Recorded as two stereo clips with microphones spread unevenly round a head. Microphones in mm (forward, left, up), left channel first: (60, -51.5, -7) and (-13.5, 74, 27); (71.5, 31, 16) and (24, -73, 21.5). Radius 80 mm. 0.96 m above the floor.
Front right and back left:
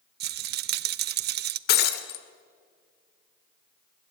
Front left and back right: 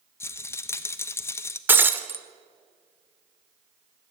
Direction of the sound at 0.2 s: 130° left.